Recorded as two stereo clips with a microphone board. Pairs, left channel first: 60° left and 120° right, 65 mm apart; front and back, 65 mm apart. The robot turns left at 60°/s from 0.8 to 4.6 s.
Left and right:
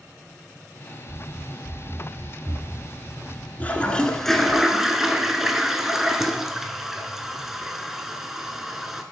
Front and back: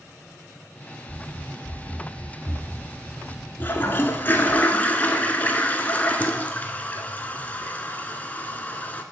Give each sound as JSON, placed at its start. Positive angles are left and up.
{"t": 1.1, "sound": "running footsteps", "azimuth_deg": -75, "distance_m": 0.7}
{"t": 3.6, "sound": "a toilet flushing", "azimuth_deg": 20, "distance_m": 0.6}